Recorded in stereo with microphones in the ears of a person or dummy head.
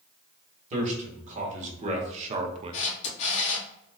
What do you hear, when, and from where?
0.7 s a man speaking: 45° right (ahead or behind), 1.7 m; by 2.8 s 30° right (ahead or behind), 0.5 m
2.7 s a camera shutter: 40° left (ahead or behind), 1.4 m